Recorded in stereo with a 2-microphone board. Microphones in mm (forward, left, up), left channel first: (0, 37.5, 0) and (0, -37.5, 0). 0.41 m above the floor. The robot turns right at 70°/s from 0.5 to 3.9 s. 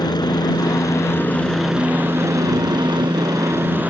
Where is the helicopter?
100° left; by 3.9 s 20° right.